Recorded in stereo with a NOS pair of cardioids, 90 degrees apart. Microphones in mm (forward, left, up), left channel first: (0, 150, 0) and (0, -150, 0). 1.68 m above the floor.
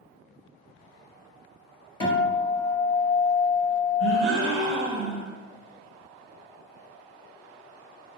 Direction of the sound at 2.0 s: 15° left.